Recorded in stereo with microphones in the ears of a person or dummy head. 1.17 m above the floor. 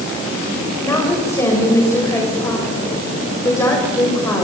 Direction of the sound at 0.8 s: 20° left (ahead or behind).